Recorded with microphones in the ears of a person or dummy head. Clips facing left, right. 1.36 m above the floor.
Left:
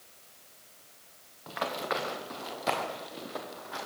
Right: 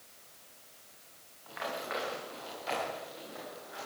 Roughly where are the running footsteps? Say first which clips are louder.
Left 5 dB; left.